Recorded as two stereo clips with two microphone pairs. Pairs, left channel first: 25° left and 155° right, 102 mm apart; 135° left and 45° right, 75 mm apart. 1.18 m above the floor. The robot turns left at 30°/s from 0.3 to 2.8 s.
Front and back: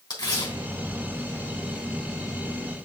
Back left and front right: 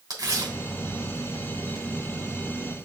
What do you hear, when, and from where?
0.1 s tearing paper: 15° right, 3 m; by 1.9 s 65° right, 3 m